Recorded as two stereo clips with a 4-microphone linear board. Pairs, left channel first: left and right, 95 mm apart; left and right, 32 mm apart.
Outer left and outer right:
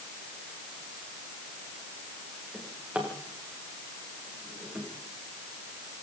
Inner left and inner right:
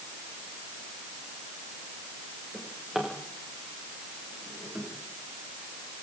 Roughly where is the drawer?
Centre.